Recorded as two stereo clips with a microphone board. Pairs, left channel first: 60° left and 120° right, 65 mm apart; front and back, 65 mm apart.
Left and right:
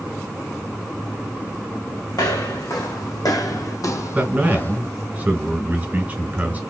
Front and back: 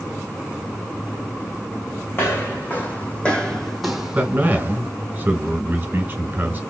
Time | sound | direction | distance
2.1 | footsteps | 55° left | 1.5 m
4.2 | a man speaking | 160° right | 1.7 m